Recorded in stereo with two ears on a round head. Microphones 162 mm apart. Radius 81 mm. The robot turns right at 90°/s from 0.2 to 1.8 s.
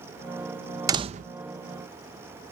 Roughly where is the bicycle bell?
No bicycle bell in this recording.